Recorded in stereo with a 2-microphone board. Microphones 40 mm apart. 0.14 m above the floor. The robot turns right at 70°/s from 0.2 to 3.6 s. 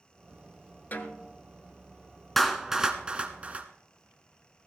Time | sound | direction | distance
0.9 | a snare drum | 115° left | 1.1 m
2.4 | a clap | 5° left (ahead or behind) | 1.2 m